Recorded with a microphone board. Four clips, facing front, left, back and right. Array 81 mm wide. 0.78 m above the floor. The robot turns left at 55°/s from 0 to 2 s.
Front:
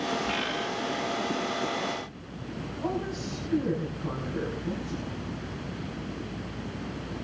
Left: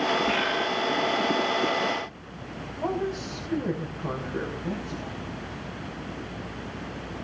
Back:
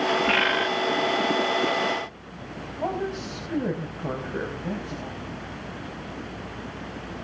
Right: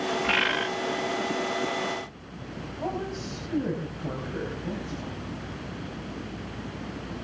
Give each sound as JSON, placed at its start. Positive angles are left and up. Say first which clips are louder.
{"t": 0.2, "sound": "a bird", "louder": "left 1 dB, back 8 dB", "azimuth_deg": -140, "distance_m": 1.2}
{"t": 2.8, "sound": "a woman speaking", "louder": "left 4 dB, back 4 dB", "azimuth_deg": 175, "distance_m": 5.0}